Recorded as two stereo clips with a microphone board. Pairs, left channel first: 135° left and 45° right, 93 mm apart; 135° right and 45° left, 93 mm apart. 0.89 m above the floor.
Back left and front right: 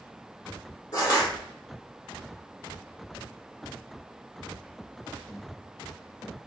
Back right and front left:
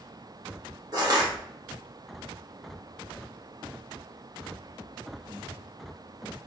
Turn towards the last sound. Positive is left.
turn(degrees=90)